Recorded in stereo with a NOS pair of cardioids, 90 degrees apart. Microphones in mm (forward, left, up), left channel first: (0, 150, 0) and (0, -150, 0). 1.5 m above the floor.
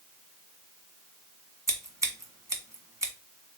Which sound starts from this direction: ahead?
Scissors, at 1.7 s.